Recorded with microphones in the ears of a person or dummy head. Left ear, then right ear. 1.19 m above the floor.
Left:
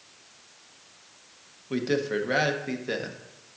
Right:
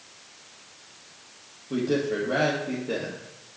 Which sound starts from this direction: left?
A man speaking, at 1.7 s.